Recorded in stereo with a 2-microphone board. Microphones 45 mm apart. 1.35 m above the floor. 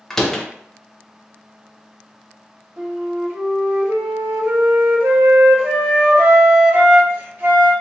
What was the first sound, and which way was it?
A door slam, 10° left (ahead or behind).